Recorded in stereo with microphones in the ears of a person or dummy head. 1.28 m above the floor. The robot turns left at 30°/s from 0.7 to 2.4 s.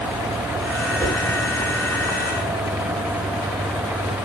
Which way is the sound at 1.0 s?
5° left (ahead or behind).